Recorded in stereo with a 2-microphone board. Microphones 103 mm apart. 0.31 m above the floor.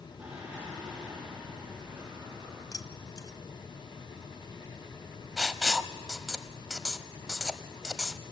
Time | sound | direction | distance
0.2 | singing | 5° right (ahead or behind) | 8.5 m
2.7 | keys jangling | 40° left (ahead or behind) | 1.0 m
5.4 | writing | 5° right (ahead or behind) | 0.6 m